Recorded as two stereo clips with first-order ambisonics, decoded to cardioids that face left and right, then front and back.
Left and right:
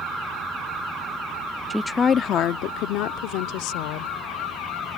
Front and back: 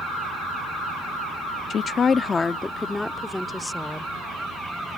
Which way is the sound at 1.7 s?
5° right.